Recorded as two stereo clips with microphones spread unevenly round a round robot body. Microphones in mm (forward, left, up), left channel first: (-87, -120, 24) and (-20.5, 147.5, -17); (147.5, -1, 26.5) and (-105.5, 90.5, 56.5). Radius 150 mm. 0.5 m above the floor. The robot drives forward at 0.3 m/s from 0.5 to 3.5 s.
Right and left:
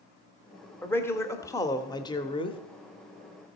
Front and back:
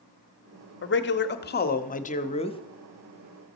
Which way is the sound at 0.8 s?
15° right.